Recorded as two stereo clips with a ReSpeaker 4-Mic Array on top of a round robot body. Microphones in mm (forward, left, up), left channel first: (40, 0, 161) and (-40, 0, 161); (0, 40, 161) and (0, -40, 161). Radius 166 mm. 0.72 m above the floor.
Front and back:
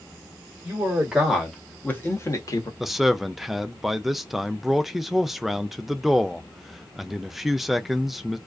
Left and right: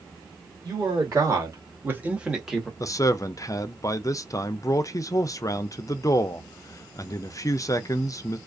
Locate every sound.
0.6 s a man speaking: 115° right, 1.5 m; by 2.7 s straight ahead, 1.2 m
2.8 s a man speaking: 95° left, 0.5 m